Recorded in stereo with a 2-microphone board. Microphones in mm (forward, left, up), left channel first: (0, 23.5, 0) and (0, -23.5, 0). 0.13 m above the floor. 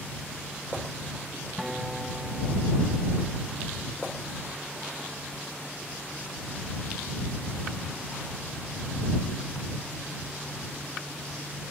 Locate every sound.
1.6 s a guitar: 5° right (ahead or behind)